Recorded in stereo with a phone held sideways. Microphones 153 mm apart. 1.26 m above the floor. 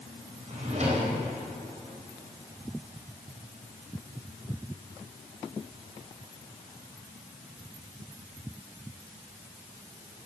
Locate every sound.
0.5 s a drawer: 50° right (ahead or behind), 4 m